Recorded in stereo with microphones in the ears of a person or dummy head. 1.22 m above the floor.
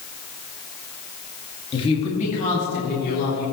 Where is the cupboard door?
I don't hear a cupboard door.